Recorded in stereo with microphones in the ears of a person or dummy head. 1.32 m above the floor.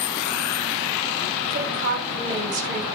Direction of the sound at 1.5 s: 80° right.